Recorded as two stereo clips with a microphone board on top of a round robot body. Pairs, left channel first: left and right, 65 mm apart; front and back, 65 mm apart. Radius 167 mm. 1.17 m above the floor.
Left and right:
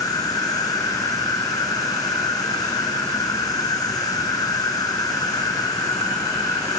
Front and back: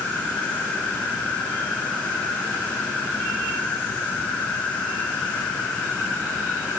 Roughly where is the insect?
Left.